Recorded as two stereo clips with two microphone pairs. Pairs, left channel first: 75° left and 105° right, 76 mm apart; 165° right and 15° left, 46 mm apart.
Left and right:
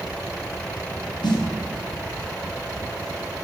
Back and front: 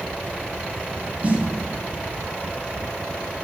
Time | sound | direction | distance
1.2 | a snare drum | 70° left | 0.6 m